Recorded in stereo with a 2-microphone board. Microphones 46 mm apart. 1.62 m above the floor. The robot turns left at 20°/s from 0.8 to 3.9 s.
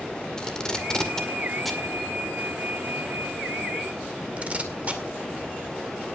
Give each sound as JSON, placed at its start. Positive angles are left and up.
{"t": 0.4, "sound": "tape being pulled", "side_deg": 15, "distance_m": 2.0}